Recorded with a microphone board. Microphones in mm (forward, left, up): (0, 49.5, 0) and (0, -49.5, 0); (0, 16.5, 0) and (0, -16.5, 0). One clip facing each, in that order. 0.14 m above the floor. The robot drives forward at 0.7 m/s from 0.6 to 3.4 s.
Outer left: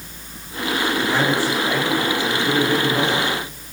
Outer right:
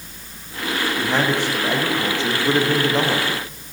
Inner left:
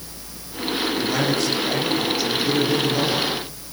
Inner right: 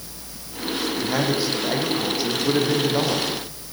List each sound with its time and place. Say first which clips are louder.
1.0 s a man speaking: even, even; 20° right (ahead or behind), 8 m; by 3.2 s 25° right (ahead or behind), 6.5 m